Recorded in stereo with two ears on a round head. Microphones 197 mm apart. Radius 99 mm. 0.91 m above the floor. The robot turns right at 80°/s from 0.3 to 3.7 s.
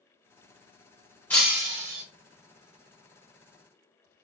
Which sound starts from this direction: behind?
Breaking glass, at 1.3 s.